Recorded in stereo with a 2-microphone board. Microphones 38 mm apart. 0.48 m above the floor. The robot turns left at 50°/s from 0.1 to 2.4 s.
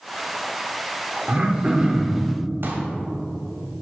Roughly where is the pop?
Right.